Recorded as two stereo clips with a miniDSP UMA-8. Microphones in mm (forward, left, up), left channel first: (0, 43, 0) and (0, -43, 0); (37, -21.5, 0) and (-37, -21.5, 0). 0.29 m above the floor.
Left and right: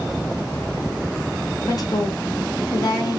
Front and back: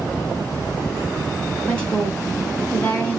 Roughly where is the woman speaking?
Left.